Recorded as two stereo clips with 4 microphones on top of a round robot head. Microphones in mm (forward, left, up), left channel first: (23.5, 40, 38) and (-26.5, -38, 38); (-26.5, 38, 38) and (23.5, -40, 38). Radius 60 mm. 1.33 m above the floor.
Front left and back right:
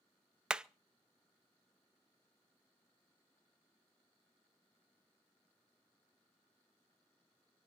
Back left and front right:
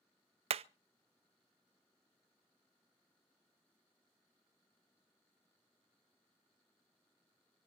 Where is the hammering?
40° right, 0.6 m.